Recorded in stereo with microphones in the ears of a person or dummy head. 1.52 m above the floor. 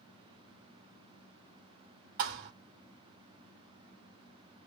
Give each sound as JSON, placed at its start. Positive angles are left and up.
{"t": 2.2, "sound": "a thud", "side_deg": -50, "distance_m": 2.0}